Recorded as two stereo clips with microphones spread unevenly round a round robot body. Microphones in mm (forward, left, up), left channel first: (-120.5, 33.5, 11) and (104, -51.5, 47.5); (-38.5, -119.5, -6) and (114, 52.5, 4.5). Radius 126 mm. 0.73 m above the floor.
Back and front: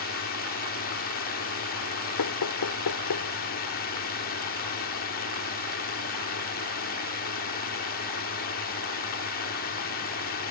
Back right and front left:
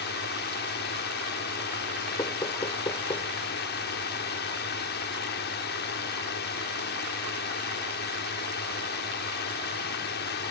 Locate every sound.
0.0 s a drone: 170° right
2.2 s knocking: 155° left